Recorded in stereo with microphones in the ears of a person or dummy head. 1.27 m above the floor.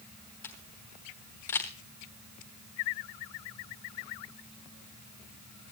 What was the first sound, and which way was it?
A camera shutter, 10° left (ahead or behind).